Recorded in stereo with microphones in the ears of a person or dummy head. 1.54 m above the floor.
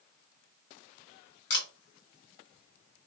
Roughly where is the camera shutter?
Left.